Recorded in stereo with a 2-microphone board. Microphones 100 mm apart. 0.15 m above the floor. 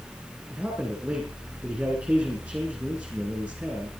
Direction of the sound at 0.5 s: 10° right (ahead or behind).